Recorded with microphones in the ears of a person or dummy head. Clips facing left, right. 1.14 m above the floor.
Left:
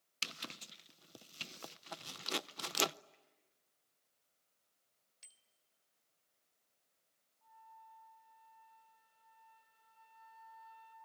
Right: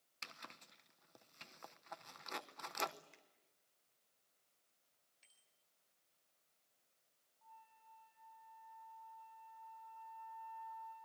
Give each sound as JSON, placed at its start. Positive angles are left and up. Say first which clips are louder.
{"t": 0.2, "sound": "a zipper", "louder": "left 7 dB", "side_deg": 40, "distance_m": 0.6}
{"t": 3.1, "sound": "a finger snap", "louder": "right 1 dB", "side_deg": -85, "distance_m": 4.0}
{"t": 5.2, "sound": "a bicycle bell", "louder": "left 5 dB", "side_deg": 60, "distance_m": 3.5}
{"t": 7.4, "sound": "a flute", "louder": "left 4 dB", "side_deg": 25, "distance_m": 9.5}